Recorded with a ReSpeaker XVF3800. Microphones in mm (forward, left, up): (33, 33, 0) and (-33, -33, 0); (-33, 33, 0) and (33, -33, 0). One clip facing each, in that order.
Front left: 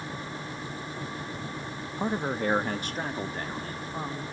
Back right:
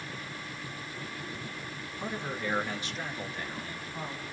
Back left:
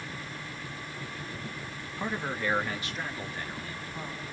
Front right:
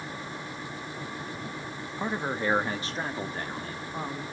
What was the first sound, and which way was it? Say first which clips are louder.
A man speaking: front left 7 dB, front right 3 dB; 30° left.